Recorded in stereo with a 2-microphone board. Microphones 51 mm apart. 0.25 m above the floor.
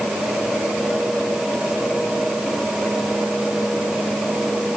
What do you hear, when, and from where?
Only background noise.